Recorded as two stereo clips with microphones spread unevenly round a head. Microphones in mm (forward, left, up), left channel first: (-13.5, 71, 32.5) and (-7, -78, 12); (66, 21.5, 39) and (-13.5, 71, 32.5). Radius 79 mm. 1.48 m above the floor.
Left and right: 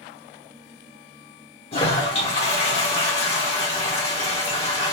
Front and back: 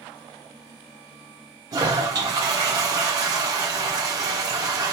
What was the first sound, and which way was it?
A toilet flushing, 110° left.